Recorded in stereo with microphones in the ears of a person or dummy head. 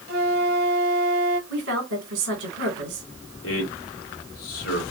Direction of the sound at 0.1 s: 50° right (ahead or behind).